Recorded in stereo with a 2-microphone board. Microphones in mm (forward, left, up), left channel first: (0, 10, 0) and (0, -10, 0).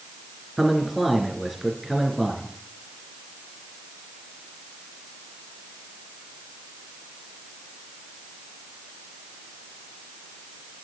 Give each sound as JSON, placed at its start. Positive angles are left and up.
{"t": 0.6, "sound": "a man speaking", "side_deg": -10, "distance_m": 3.5}